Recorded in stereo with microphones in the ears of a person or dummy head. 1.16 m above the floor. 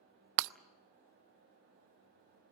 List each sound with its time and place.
0.4 s breaking glass: 65° right (ahead or behind), 0.5 m